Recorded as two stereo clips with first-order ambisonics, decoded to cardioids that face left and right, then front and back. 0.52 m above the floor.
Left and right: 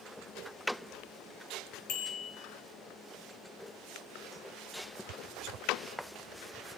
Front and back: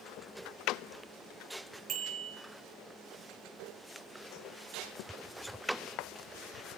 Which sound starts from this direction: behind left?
A bicycle bell, at 1.9 s.